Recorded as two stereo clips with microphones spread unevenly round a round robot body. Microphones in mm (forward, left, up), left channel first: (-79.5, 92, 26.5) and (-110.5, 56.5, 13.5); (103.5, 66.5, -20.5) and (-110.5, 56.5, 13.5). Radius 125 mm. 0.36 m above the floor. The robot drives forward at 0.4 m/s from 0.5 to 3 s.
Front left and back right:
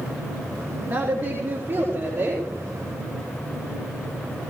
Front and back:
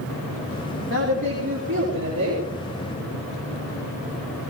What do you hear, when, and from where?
0.9 s a woman speaking: 150° right, 4 m; by 2.4 s 155° right, 4.5 m